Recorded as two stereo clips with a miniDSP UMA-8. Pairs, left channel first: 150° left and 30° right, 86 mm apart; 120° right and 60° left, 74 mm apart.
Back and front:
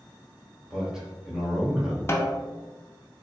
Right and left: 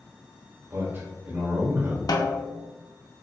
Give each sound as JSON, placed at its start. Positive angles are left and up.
{"t": 0.7, "sound": "a man speaking", "azimuth_deg": 50, "distance_m": 1.2}
{"t": 2.1, "sound": "a snare drum", "azimuth_deg": -150, "distance_m": 0.6}